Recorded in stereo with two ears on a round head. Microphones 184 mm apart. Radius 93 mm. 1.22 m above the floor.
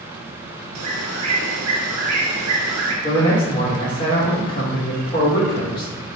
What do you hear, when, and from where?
0.8 s a bird: 85° right, 0.9 m
3.0 s a man speaking: 25° left (ahead or behind), 1.4 m